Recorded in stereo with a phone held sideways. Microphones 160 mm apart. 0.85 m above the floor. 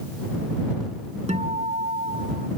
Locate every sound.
1.3 s a guitar: 45° right (ahead or behind)